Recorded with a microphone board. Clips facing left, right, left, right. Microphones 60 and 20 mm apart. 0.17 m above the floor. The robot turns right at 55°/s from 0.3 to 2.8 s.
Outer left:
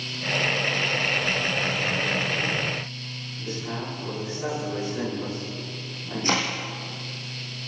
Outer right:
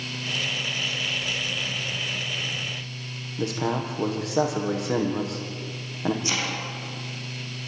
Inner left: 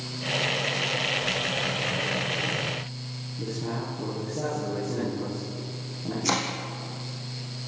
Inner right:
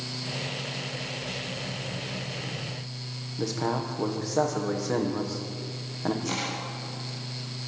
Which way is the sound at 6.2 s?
45° left (ahead or behind).